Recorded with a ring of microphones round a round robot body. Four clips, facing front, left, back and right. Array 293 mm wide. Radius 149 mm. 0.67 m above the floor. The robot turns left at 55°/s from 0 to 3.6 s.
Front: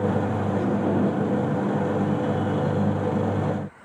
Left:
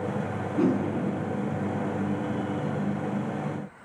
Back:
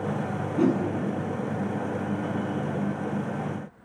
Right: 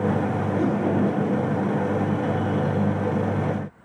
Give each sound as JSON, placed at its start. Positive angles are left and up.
{"t": 0.6, "sound": "a whoosh", "azimuth_deg": 130, "distance_m": 7.5}